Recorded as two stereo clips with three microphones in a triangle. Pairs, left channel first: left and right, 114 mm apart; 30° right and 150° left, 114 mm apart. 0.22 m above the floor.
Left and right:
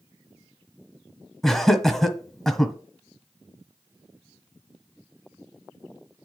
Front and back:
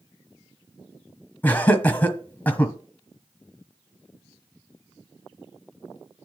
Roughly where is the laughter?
Ahead.